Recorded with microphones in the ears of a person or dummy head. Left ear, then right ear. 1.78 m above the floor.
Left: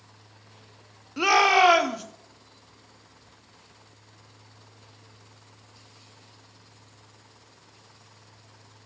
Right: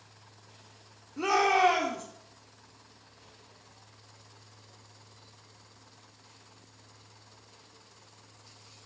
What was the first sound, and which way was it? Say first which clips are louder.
A shout: left 6 dB; 60° left (ahead or behind).